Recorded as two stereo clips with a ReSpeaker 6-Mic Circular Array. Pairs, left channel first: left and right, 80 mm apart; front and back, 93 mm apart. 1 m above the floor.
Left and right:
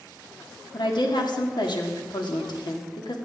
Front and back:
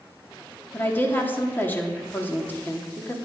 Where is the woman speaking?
70° left, 2.0 m.